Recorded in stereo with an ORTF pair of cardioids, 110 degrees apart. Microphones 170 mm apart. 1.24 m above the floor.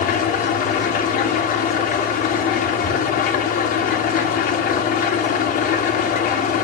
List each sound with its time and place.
0.0 s an engine running: 55° left, 1.6 m